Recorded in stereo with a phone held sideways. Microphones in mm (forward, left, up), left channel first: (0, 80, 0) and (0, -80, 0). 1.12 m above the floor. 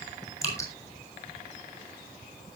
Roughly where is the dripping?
Centre.